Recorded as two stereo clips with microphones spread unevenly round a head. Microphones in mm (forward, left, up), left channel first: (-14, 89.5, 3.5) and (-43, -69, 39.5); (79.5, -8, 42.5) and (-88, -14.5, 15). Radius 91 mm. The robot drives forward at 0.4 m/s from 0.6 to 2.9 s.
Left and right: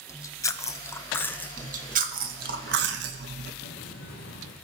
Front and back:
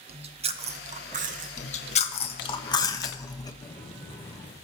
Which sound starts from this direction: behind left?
Chewing, at 0.1 s.